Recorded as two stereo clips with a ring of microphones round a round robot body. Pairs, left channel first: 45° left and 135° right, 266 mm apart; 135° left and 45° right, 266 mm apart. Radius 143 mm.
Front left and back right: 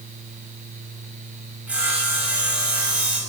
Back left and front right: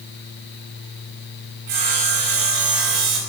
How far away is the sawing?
About 5 m.